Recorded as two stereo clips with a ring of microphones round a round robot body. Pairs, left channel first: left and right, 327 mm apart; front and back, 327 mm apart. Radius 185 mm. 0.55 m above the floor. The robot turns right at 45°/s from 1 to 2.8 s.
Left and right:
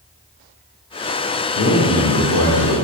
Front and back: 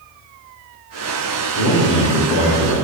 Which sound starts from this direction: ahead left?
A man speaking, at 1.6 s.